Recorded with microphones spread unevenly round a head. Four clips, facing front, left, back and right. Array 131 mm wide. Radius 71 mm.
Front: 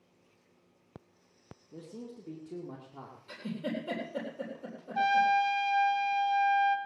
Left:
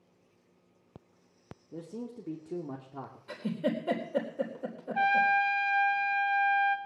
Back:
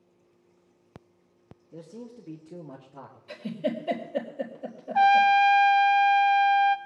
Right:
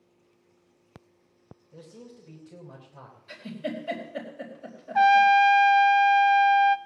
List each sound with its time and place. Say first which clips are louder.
1.7 s a man speaking: left 6 dB, back 2 dB; 105° left, 2 m
3.3 s a giggle: left 2 dB, back 6 dB; 115° left, 3.5 m
5.0 s a trumpet: right 9 dB, back 7 dB; 140° right, 0.7 m